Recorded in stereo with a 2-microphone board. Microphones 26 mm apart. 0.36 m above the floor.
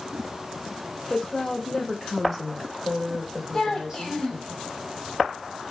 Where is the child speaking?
20° left (ahead or behind), 1.0 m.